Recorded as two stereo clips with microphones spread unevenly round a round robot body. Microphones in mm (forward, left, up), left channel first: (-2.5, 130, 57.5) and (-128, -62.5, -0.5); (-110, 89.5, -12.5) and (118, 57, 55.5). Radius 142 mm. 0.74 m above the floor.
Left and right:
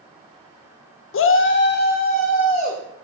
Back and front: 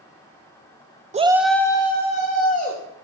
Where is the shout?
60° left, 0.6 m; by 2.8 s 125° left, 1.8 m.